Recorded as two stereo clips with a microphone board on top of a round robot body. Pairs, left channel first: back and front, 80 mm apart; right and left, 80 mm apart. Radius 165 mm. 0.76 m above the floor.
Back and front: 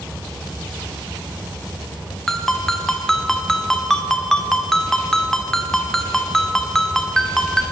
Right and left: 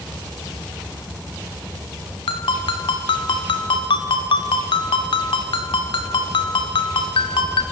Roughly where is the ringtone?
Right.